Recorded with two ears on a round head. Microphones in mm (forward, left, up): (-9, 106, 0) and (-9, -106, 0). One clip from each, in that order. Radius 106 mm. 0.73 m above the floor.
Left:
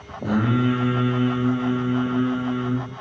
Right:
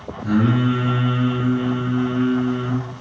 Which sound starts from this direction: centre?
Singing, at 0.2 s.